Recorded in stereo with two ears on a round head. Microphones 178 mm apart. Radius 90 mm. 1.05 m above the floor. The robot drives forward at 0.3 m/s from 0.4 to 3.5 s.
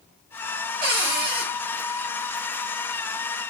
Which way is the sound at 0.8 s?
30° right (ahead or behind).